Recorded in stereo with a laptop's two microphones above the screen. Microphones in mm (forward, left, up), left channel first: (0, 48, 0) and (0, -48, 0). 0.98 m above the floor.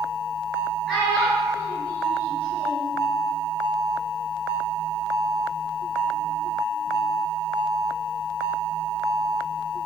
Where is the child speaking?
5° left (ahead or behind), 0.9 m; by 2.9 s 60° right (ahead or behind), 1.5 m.